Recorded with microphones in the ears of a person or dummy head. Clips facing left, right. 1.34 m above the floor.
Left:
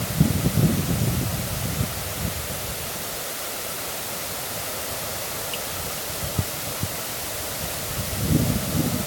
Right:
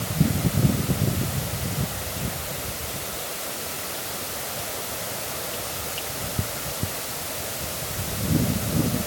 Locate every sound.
Only background noise.